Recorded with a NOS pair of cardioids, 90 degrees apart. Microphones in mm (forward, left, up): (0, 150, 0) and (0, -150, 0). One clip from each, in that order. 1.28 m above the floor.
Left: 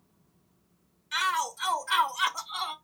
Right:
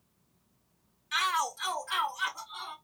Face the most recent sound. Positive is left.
turn(degrees=70)